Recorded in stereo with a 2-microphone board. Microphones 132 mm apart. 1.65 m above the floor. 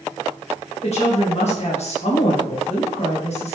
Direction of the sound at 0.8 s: 55° left (ahead or behind).